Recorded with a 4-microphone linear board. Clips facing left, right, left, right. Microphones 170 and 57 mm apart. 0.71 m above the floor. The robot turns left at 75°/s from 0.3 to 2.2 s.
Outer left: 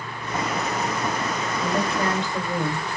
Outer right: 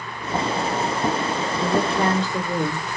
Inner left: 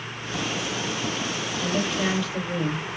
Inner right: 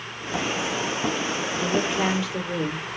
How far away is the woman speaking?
About 2.5 m.